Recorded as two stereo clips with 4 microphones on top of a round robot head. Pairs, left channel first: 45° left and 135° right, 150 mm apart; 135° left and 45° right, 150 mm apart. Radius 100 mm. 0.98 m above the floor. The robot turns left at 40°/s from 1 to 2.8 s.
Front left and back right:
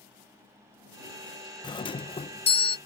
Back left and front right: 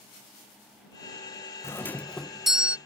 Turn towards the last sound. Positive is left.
turn(degrees=30)